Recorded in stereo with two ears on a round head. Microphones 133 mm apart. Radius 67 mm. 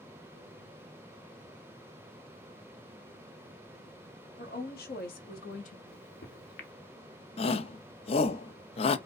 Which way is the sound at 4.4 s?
60° left (ahead or behind).